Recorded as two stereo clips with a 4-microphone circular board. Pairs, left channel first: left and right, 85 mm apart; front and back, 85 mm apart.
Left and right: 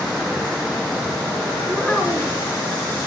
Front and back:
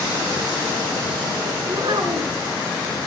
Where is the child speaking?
Straight behind, 3 m.